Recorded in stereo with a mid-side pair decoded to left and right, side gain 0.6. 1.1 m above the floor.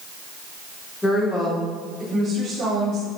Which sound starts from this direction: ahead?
A woman speaking, at 1.0 s.